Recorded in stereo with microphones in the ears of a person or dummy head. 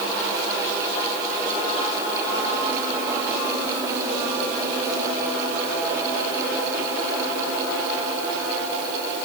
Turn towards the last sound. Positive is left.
No sound to turn to.